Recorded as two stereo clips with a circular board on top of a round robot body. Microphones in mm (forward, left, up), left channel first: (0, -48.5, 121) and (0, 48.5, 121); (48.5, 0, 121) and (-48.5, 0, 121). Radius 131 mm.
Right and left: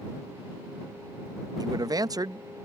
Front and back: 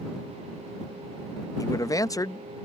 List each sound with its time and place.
1.6 s a man speaking: 50° left